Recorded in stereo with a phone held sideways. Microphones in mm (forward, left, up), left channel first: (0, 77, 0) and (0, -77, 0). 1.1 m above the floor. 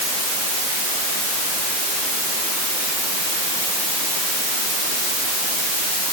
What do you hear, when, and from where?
Only background noise.